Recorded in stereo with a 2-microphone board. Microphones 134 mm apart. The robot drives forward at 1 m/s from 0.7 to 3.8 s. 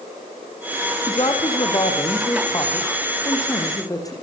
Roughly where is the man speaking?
Left.